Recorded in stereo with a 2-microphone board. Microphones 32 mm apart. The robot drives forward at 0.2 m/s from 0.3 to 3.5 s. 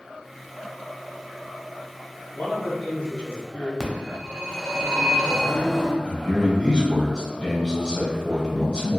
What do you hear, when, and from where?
2.3 s a man speaking: 35° left (ahead or behind), 1.2 m; by 3.7 s 30° left (ahead or behind), 1.3 m
3.8 s a phone ringing: centre (ahead or behind), 0.6 m
6.0 s a man speaking: 20° left (ahead or behind), 1.0 m